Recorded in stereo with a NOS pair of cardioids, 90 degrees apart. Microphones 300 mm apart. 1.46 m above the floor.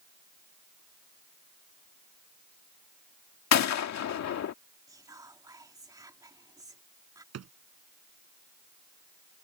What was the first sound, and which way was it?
A gunshot, 65° left.